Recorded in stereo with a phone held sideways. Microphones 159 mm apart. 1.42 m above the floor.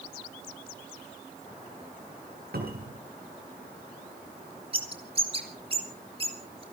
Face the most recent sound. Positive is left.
turn(degrees=-35)  # may be behind; listen again after turning